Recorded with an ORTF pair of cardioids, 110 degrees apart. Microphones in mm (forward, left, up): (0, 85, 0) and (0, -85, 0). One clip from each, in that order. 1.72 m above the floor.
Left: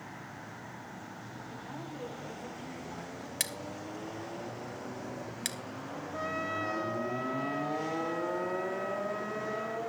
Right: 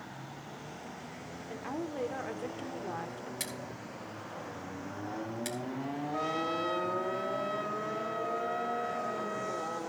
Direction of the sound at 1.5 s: 65° right.